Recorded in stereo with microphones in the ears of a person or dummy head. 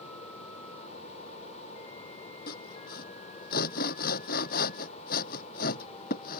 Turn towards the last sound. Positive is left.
turn(degrees=50)  # may be behind; listen again after turning